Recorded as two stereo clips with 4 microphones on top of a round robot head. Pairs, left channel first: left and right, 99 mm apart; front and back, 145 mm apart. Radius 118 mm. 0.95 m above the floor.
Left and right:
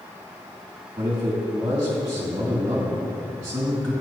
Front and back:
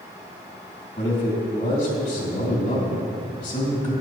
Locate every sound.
1.0 s a man speaking: 35° right, 3 m